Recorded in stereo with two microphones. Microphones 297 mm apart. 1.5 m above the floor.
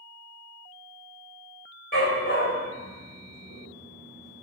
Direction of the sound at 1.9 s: 45° left (ahead or behind).